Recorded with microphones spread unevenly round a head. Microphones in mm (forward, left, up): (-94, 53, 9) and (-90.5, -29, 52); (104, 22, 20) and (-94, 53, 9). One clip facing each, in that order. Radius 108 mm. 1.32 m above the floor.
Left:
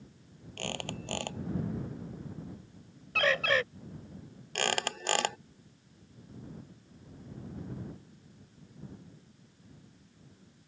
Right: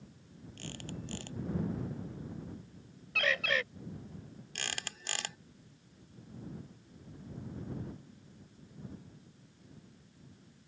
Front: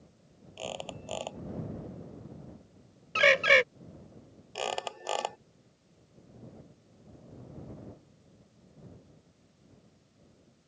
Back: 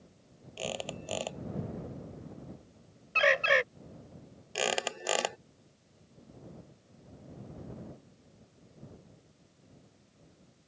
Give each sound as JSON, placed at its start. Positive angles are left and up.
{"t": 0.6, "sound": "a squeak", "azimuth_deg": 100}
{"t": 3.1, "sound": "a bird", "azimuth_deg": 0}
{"t": 4.5, "sound": "a squeak", "azimuth_deg": 125}